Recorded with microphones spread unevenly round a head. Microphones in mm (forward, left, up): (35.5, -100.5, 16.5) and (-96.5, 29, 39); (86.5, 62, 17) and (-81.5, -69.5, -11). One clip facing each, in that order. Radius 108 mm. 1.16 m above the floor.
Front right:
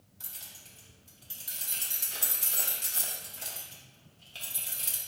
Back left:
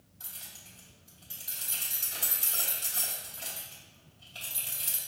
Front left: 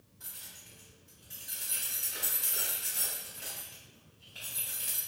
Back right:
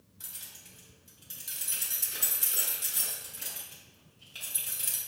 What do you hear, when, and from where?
0.2 s keys jangling: 100° right, 1.2 m